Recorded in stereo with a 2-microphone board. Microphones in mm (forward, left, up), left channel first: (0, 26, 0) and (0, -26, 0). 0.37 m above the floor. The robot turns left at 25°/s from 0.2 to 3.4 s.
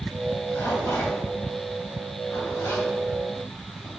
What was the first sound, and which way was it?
A zipper, 45° left (ahead or behind).